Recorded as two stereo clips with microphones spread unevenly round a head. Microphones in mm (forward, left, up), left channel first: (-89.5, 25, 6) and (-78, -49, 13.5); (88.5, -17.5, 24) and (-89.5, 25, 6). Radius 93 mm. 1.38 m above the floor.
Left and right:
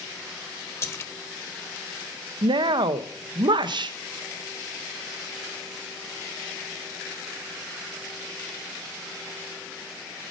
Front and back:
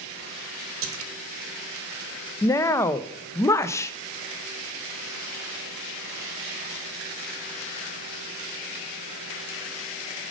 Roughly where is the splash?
Behind left.